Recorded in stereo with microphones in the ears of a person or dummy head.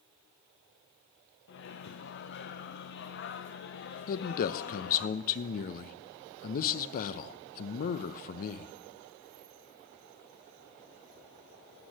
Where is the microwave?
55° left (ahead or behind), 0.9 m.